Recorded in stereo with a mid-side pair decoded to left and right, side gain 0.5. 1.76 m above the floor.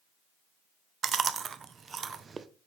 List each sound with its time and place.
1.0 s chewing: 40° right, 0.5 m